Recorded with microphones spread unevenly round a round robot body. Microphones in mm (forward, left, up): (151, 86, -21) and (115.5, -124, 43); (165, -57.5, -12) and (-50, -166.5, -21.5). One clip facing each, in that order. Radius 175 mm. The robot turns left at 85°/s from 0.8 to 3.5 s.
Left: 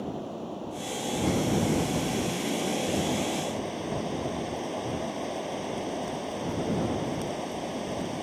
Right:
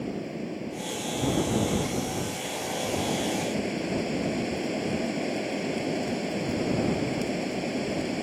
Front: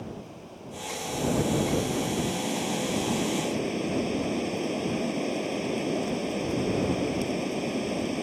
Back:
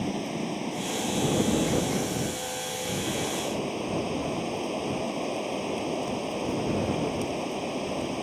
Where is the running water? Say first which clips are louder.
Right 2 dB, back 10 dB; 175° right; by 8.2 s 40° right.